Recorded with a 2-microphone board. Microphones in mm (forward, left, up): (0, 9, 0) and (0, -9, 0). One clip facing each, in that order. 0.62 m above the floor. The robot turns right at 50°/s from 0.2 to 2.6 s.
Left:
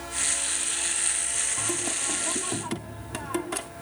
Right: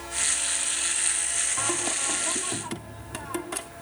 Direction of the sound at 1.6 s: 40° right.